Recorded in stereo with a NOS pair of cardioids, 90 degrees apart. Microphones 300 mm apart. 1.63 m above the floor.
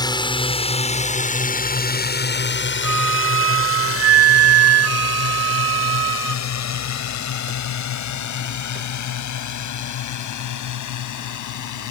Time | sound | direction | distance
0.0 | a drone | 15° left | ?
2.8 | a flute | 55° right | ?